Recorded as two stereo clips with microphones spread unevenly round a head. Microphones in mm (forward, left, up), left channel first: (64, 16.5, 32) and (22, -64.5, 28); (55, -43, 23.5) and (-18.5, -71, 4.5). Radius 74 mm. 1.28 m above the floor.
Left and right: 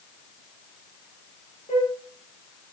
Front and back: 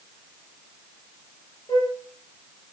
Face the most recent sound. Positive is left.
turn(degrees=90)